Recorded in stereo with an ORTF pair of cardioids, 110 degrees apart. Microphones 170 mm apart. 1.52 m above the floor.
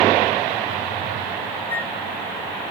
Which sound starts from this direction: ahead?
A flute, at 1.7 s.